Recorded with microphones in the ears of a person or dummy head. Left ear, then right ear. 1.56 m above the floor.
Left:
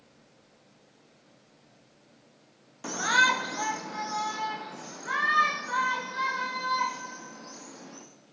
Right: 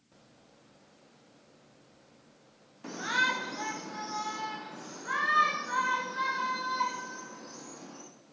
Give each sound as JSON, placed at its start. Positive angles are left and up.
{"t": 2.8, "sound": "a shout", "side_deg": 40, "distance_m": 0.9}